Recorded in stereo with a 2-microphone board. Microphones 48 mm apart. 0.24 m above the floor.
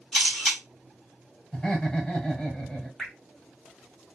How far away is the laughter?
About 1.4 m.